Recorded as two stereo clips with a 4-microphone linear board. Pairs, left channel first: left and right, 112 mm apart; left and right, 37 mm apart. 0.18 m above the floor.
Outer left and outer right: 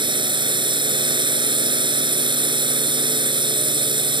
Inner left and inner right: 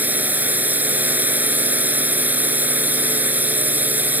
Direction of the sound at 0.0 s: 45° right (ahead or behind).